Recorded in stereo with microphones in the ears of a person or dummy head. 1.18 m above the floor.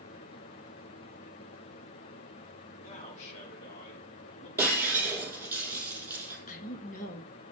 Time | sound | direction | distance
2.8 | a man speaking | 40° left (ahead or behind) | 3 m
4.6 | breaking glass | 10° right (ahead or behind) | 4.5 m
6.5 | a woman speaking | 40° left (ahead or behind) | 1.5 m